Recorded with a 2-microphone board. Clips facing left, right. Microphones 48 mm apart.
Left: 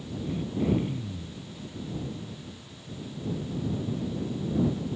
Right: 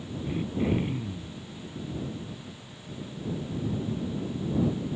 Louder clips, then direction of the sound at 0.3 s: Even; 30° right (ahead or behind).